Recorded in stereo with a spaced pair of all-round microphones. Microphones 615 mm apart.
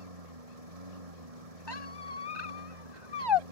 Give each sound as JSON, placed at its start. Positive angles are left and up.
{"t": 0.0, "sound": "a lawn mower", "side_deg": -80}
{"t": 1.7, "sound": "a squeak", "side_deg": 45}